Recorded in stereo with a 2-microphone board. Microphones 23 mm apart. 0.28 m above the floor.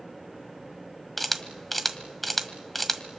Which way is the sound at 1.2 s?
5° left (ahead or behind).